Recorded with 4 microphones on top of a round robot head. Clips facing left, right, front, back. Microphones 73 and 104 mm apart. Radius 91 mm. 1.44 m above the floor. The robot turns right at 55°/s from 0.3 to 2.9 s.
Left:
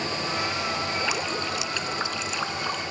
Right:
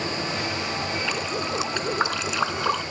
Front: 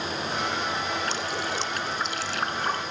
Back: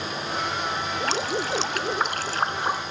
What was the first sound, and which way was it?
Dripping, 170° left.